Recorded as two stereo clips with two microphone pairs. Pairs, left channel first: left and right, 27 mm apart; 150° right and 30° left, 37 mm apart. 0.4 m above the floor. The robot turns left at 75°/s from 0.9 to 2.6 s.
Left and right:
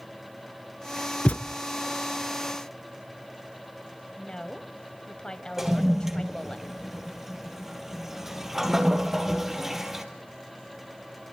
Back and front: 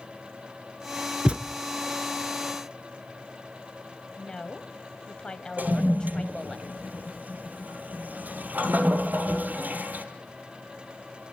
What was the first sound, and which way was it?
A thud, 90° left.